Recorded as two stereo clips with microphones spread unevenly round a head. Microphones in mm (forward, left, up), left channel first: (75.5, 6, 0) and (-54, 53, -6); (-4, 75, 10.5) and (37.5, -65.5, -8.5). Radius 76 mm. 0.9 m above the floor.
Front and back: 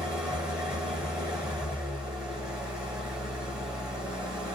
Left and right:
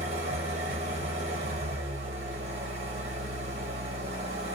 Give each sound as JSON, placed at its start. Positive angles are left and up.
{"t": 0.0, "sound": "an engine running", "azimuth_deg": -115, "distance_m": 0.8}